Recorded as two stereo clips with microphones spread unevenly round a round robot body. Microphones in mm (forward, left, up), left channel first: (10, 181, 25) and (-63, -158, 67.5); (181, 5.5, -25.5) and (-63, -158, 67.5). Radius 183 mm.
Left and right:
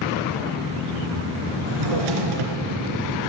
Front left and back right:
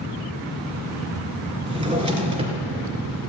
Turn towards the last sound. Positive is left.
turn(degrees=-80)